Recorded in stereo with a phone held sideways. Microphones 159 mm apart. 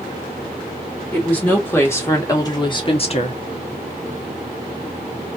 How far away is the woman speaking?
About 2.5 m.